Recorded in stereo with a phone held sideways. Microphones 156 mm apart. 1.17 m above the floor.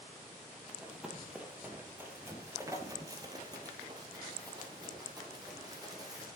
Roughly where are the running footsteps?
Centre.